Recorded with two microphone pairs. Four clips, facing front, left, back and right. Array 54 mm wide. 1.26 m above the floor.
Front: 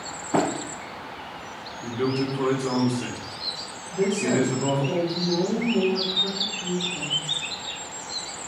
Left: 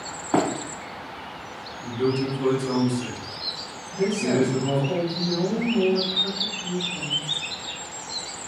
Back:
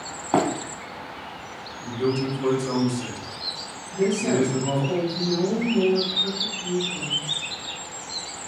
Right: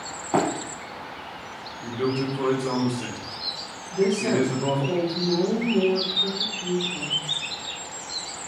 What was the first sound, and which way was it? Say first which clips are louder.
Running footsteps: left 1 dB, back 2 dB; straight behind.